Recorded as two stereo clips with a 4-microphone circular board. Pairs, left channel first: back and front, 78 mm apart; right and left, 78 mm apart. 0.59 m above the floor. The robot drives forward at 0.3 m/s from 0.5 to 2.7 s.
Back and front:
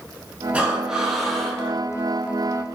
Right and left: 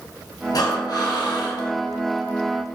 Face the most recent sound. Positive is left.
turn(degrees=-125)